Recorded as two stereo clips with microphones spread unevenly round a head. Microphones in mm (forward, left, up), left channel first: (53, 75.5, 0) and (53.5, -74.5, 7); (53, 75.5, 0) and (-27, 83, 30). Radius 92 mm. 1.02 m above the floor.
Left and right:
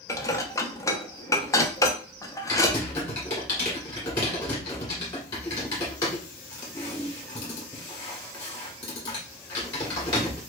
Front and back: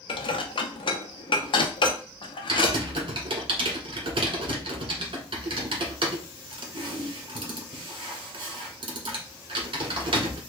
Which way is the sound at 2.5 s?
155° left.